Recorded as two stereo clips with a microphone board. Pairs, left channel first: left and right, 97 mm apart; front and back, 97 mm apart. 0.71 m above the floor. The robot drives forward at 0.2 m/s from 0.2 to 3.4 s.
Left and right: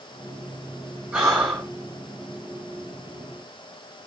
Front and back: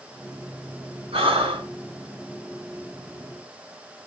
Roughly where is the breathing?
Behind.